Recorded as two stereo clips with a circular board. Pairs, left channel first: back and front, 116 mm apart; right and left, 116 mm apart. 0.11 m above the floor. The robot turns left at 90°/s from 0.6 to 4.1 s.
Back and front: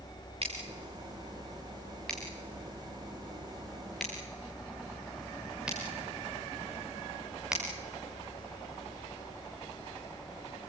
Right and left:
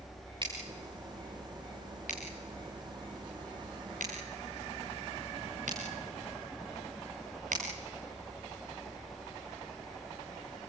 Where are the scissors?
40° left, 5.5 m; by 7.6 s 85° left, 5.5 m.